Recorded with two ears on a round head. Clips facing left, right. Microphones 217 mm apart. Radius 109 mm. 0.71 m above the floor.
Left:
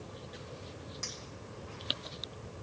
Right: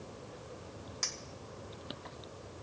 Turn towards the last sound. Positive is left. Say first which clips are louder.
# left 1 dB
turn(degrees=-30)  # may be behind; listen again after turning